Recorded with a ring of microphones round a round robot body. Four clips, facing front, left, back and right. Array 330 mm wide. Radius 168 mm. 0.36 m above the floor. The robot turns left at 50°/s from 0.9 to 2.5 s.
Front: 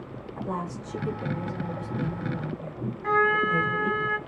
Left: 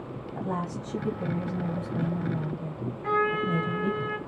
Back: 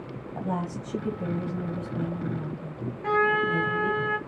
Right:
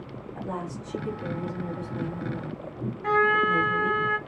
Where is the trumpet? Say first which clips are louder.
Right 4 dB, even; 140° right, 1.0 m.